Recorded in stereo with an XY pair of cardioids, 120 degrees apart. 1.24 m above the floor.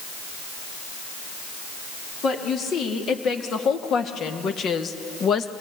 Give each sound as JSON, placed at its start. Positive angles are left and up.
{"t": 2.2, "sound": "a woman speaking", "azimuth_deg": 55, "distance_m": 4.0}